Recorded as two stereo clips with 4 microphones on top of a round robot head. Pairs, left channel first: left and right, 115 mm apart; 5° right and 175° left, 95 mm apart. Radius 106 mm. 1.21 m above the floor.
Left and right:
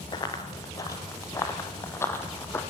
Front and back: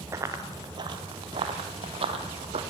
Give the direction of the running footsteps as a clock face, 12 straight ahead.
8 o'clock.